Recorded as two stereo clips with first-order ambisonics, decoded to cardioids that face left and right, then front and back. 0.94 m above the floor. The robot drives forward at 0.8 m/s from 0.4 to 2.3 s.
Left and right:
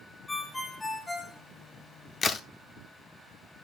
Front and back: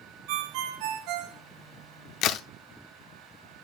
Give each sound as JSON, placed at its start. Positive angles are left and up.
{"t": 0.3, "sound": "a ringtone", "azimuth_deg": 175, "distance_m": 0.5}
{"t": 2.2, "sound": "a crack", "azimuth_deg": 20, "distance_m": 0.7}